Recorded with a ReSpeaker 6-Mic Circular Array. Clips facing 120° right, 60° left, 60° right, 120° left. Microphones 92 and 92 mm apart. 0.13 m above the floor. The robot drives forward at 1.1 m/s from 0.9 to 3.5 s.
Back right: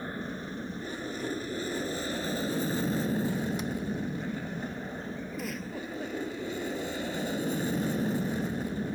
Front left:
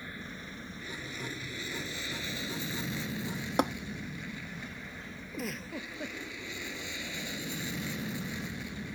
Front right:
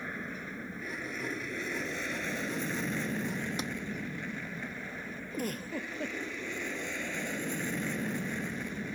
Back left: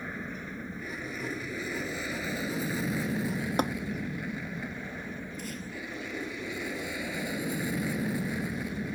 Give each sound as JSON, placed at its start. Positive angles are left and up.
{"t": 0.0, "sound": "an aircraft", "azimuth_deg": -150}
{"t": 3.6, "sound": "tapping", "azimuth_deg": 85}
{"t": 5.3, "sound": "a giggle", "azimuth_deg": -30}